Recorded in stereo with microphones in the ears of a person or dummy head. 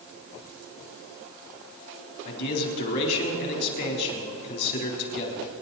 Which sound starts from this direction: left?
A man speaking, at 2.2 s.